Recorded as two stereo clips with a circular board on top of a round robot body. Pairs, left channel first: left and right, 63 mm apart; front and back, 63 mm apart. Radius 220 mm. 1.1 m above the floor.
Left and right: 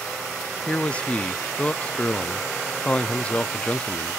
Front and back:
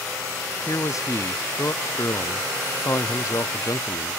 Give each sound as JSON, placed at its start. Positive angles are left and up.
{"t": 0.7, "sound": "a man speaking", "azimuth_deg": 20, "distance_m": 0.7}